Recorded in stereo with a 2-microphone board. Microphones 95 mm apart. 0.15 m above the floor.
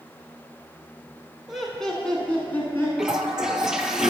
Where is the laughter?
5° right (ahead or behind), 1.1 m; by 2.9 s 25° left (ahead or behind), 1.4 m.